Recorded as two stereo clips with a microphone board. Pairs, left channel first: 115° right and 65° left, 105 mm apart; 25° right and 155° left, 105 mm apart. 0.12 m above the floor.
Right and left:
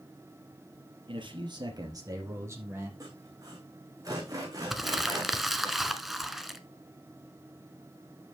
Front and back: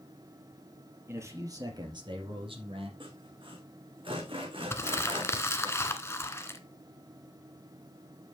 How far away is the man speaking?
About 3.5 m.